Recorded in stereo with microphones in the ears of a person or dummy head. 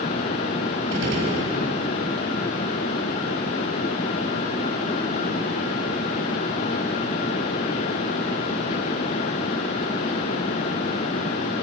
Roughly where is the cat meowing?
No cat meowing in this recording.